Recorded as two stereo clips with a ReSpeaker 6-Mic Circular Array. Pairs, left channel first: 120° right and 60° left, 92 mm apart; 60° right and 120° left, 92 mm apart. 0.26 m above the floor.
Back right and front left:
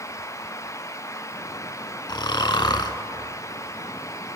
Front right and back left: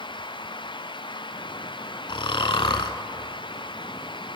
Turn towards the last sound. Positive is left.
turn(degrees=-85)